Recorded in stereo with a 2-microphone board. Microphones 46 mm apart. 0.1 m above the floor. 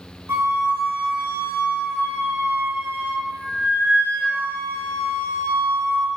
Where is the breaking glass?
I don't hear breaking glass.